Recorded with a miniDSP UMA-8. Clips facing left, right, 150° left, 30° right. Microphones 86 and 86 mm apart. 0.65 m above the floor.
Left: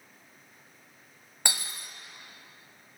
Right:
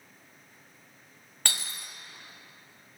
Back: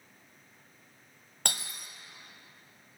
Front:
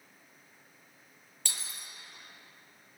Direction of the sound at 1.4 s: 165° left.